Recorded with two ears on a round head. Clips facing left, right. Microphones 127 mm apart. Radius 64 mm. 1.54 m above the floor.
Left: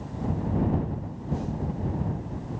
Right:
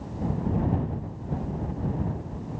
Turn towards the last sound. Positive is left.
No sound to turn to.